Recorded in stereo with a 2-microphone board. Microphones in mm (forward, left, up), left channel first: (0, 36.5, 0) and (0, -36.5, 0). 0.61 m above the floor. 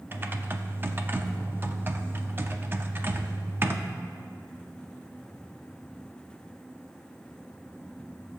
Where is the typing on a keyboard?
30° right (ahead or behind), 0.6 m.